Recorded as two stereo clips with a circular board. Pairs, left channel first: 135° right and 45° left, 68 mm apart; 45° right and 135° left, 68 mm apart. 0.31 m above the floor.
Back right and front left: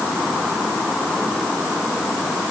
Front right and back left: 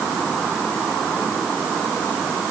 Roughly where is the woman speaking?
No woman speaking in this recording.